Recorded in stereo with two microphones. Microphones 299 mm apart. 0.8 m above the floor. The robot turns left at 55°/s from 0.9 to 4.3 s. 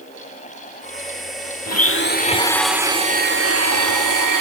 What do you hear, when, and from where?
1.7 s a blender: 55° left, 1.1 m; by 4.4 s 90° right, 1.1 m